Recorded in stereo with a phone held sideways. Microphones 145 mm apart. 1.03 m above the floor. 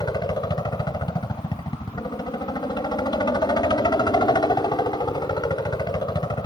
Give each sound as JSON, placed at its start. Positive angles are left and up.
{"t": 0.0, "sound": "a helicopter", "side_deg": 30}